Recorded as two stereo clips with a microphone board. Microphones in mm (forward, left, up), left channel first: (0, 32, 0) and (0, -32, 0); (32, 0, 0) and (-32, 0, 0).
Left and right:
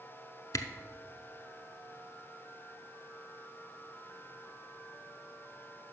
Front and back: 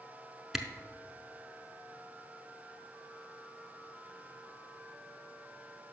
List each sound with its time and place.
0.5 s a camera shutter: 95° left, 0.6 m